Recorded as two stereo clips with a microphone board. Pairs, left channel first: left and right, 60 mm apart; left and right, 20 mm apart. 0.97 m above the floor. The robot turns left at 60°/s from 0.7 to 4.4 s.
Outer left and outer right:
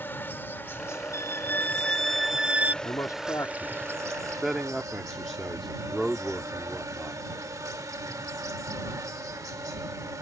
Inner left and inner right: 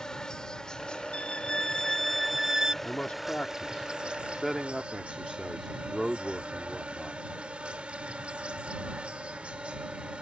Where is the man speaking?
75° left (ahead or behind); by 7.2 s centre (ahead or behind).